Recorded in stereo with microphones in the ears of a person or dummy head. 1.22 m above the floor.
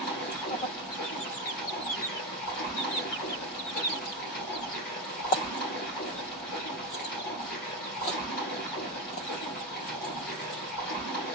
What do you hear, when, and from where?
0.0 s running water: 55° left (ahead or behind), 1.8 m